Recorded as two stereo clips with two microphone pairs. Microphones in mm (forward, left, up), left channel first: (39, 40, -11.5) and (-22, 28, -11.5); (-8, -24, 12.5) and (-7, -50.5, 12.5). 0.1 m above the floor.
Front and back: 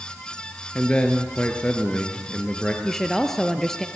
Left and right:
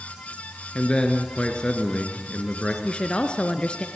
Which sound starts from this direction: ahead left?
A man speaking, at 0.8 s.